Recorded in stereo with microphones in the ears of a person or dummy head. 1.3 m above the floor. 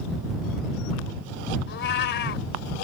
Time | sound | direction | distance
1.7 | a cat meowing | 60° left (ahead or behind) | ?